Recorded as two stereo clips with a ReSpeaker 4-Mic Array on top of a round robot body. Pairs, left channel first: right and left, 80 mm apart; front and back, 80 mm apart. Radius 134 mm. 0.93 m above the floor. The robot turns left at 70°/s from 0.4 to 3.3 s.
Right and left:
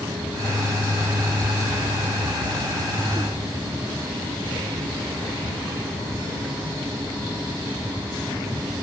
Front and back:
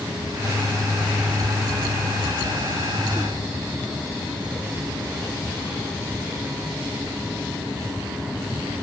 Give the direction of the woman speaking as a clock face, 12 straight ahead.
I don't hear a woman speaking.